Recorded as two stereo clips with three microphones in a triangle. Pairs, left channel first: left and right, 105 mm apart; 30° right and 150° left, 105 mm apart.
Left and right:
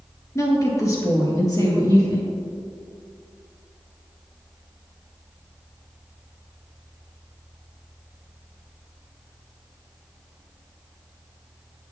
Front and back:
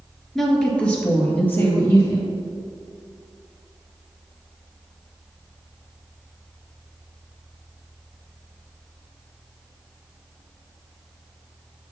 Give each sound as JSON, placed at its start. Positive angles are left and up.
{"t": 0.3, "sound": "a woman speaking", "azimuth_deg": 55, "distance_m": 1.3}